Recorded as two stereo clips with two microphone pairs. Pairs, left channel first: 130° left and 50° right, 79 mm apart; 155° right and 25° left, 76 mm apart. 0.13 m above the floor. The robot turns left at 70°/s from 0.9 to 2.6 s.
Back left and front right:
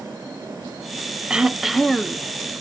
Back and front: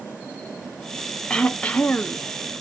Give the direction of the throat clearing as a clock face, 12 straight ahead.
4 o'clock.